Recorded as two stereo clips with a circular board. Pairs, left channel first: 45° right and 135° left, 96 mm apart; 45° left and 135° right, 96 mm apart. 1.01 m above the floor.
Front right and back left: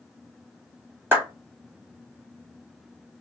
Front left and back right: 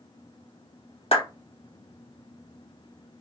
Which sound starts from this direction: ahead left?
A clap, at 1.1 s.